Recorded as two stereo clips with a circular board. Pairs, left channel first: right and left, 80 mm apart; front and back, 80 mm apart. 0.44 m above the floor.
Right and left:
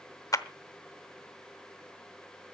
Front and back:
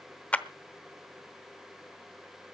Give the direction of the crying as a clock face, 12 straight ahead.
I don't hear crying.